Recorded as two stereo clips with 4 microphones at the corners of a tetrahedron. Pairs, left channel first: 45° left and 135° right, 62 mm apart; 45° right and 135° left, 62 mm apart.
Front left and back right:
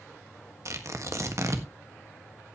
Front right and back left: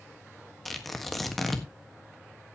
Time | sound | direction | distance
0.7 | tearing paper | 135° right | 1.5 m